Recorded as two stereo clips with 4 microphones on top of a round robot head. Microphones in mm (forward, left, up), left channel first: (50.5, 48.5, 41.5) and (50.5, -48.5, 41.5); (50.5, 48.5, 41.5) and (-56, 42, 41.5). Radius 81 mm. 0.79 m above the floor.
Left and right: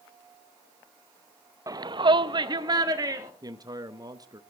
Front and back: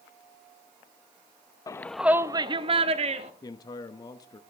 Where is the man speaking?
50° right, 0.8 m.